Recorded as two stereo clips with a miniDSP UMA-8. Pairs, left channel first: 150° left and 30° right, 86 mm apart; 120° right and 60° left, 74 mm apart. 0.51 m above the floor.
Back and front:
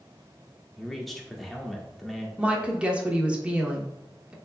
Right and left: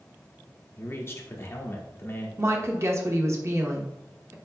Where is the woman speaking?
40° left, 0.9 m.